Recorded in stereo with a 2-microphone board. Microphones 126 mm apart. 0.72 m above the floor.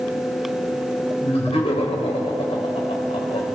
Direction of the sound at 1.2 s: 55° left (ahead or behind).